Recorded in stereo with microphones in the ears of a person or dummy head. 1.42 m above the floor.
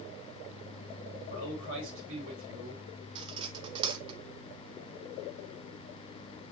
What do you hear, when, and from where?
1.3 s a man speaking: 75° right (ahead or behind), 4.5 m
3.1 s cutlery clinking: 25° right (ahead or behind), 0.9 m